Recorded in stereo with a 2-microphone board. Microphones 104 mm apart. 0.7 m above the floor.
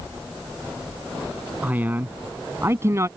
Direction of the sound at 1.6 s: 15° right (ahead or behind).